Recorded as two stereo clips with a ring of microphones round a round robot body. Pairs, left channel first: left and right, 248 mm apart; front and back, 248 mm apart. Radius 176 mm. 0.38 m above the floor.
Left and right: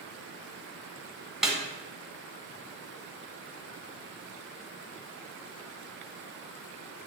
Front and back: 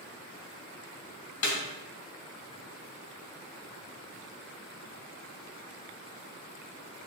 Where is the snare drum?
Straight ahead, 1.8 m.